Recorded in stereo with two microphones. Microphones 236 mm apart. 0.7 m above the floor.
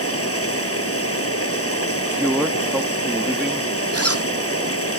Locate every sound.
0.0 s running water: 75° left (ahead or behind)
1.9 s a man speaking: 5° right (ahead or behind)
3.9 s a zipper: 85° right